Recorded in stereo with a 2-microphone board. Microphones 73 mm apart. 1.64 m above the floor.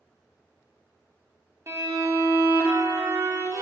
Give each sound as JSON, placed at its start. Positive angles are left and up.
{"t": 1.7, "sound": "a violin", "side_deg": -45, "distance_m": 0.9}